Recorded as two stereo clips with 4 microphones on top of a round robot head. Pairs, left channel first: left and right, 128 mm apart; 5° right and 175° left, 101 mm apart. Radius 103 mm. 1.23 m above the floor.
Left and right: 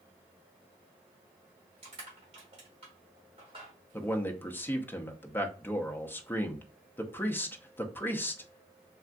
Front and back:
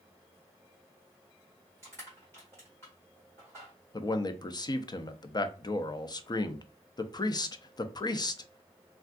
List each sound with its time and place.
1.8 s crushing: 75° right, 1.0 m
3.9 s a man speaking: 20° left, 0.5 m